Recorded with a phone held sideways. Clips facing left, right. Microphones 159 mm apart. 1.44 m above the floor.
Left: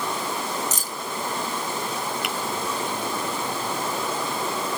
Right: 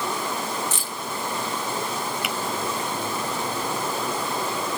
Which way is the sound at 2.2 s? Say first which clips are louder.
Even; centre (ahead or behind).